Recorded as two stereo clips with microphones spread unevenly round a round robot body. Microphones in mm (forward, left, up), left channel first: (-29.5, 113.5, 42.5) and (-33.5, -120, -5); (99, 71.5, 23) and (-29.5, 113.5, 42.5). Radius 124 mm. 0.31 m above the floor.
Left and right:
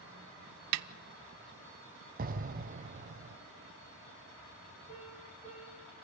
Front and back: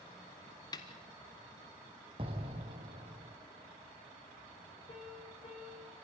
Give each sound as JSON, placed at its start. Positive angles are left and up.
{"t": 0.7, "sound": "a snare drum", "azimuth_deg": -90, "distance_m": 0.6}
{"t": 2.2, "sound": "an explosion", "azimuth_deg": -135, "distance_m": 0.9}
{"t": 4.9, "sound": "a piano", "azimuth_deg": 30, "distance_m": 6.0}